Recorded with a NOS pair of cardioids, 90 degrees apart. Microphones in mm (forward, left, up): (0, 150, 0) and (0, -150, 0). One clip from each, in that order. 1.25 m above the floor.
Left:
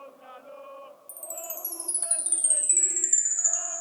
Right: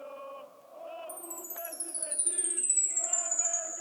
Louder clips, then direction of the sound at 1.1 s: Left 4 dB; 60° left.